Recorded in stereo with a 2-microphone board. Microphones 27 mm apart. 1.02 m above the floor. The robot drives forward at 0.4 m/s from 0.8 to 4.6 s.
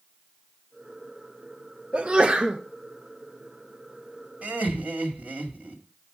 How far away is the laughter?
About 2.0 m.